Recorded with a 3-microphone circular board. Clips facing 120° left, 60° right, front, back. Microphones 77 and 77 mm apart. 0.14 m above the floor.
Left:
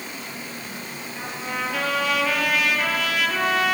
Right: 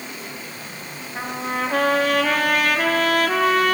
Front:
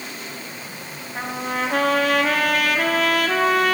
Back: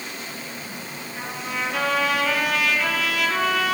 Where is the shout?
No shout in this recording.